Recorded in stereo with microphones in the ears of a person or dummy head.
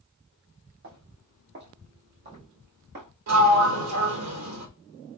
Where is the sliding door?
80° right, 1.8 m.